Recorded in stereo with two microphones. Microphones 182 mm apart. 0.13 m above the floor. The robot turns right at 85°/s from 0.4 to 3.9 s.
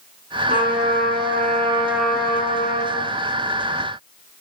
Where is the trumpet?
135° right, 9 m; by 3.1 s 85° left, 9 m.